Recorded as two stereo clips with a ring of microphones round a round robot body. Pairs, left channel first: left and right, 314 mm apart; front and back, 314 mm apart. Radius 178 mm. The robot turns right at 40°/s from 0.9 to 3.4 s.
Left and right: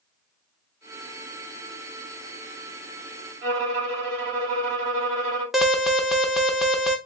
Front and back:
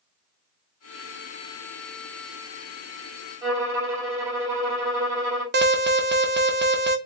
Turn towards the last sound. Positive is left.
turn(degrees=180)